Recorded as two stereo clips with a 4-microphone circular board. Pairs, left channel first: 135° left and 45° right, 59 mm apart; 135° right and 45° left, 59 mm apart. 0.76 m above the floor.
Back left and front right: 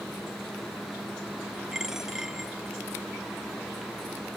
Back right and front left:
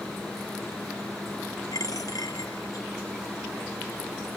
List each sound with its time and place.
1.7 s a dropped coin: 125° right